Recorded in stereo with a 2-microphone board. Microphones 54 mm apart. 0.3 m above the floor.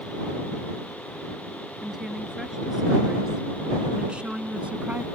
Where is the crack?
I don't hear a crack.